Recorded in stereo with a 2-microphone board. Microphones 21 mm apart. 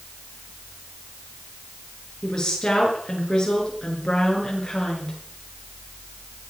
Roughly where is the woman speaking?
Left.